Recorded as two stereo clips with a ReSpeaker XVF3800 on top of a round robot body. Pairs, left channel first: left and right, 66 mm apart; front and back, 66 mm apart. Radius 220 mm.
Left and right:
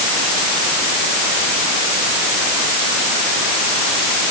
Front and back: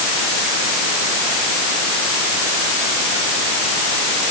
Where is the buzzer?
I don't hear a buzzer.